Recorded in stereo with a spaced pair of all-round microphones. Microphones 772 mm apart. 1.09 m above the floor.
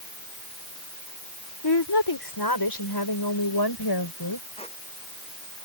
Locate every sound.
1.6 s a woman speaking: 30° left (ahead or behind)
4.6 s a squeak: 10° left (ahead or behind)